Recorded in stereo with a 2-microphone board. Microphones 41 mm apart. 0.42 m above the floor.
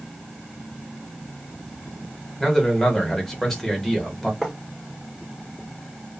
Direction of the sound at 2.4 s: 10° left (ahead or behind).